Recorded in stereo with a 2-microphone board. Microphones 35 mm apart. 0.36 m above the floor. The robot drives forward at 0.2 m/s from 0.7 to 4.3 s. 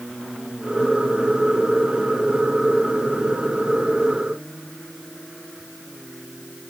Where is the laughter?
I don't hear laughter.